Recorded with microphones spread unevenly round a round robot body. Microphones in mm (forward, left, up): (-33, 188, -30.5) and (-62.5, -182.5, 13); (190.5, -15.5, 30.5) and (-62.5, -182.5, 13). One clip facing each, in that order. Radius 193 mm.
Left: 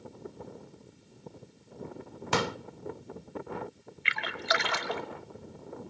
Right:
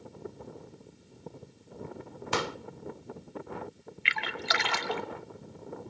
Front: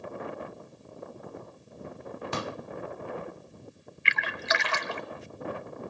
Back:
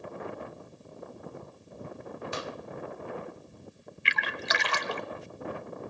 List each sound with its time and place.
2.3 s a pop: 80° left, 0.5 m
4.0 s a splash: 135° right, 1.1 m